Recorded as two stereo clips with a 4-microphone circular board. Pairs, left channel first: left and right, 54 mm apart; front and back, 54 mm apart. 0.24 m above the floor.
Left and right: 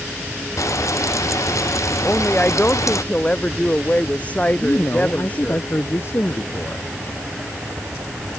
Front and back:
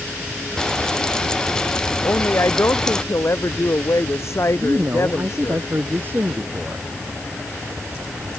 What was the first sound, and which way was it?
Frying, 75° left.